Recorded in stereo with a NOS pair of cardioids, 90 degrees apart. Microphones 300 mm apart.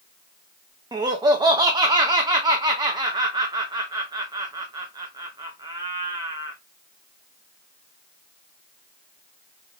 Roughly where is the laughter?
Ahead.